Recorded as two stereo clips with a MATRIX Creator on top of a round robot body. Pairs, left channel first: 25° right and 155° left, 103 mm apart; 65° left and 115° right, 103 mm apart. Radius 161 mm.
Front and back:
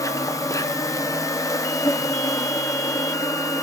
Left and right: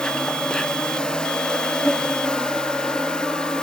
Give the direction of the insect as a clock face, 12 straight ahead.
12 o'clock.